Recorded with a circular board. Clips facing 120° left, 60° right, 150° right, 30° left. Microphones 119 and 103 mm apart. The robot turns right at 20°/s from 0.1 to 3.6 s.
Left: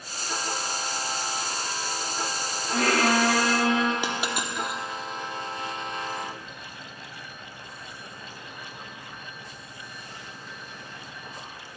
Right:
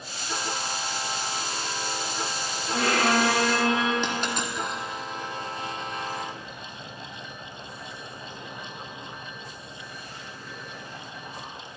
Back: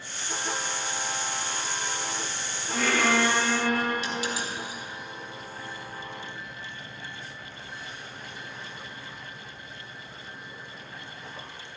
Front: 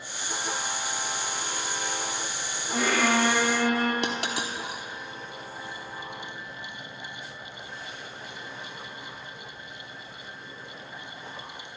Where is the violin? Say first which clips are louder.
Left 1 dB, even; 100° left, 3 m; by 3.9 s 120° left, 3 m.